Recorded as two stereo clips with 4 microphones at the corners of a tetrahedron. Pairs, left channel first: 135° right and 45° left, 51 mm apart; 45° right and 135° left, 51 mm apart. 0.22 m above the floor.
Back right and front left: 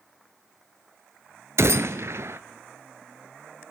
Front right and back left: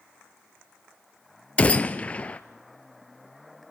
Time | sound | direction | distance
1.6 | a gunshot | 15° left | 0.8 m